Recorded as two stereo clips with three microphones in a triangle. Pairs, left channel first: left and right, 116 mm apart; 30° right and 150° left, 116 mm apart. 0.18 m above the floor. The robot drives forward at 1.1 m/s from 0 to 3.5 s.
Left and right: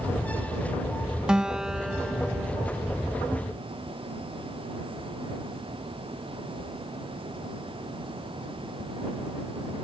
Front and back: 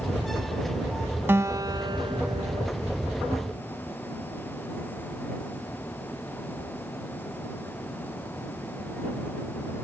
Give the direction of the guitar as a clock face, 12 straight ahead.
5 o'clock.